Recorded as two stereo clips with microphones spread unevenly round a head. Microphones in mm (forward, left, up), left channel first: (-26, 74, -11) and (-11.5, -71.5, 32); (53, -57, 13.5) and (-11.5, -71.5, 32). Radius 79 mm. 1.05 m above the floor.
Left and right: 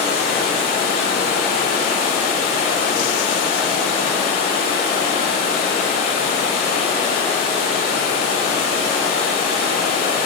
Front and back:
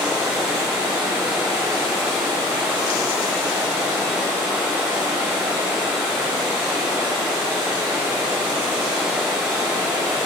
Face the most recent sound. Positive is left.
turn(degrees=130)